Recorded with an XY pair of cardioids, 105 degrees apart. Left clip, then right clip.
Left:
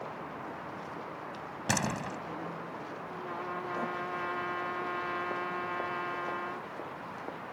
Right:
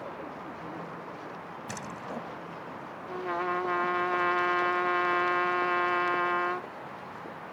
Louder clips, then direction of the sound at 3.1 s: Right 9 dB; 60° right.